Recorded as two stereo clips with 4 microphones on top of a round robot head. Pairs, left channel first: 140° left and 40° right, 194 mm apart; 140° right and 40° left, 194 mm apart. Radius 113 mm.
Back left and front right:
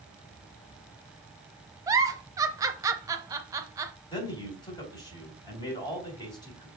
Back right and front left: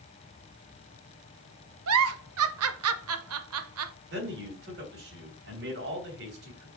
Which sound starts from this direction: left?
A man speaking, at 4.1 s.